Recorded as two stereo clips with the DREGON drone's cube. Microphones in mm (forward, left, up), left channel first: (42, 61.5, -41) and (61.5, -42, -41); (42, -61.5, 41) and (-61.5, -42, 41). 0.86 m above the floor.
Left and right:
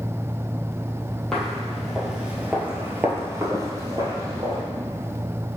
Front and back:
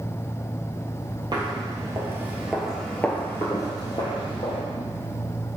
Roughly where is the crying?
I don't hear crying.